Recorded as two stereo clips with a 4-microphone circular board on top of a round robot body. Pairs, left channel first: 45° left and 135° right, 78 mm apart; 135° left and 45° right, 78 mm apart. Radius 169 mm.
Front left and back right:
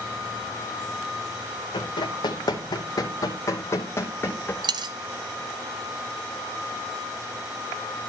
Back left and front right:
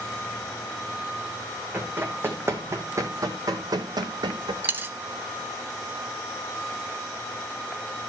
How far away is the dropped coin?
About 0.7 m.